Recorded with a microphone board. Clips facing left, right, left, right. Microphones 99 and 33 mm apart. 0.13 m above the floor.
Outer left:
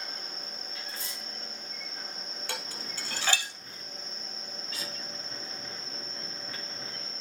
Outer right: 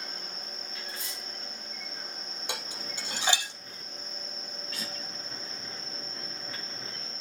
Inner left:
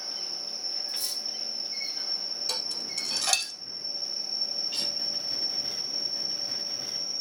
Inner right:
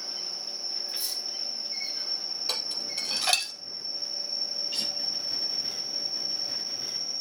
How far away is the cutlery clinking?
About 5.5 m.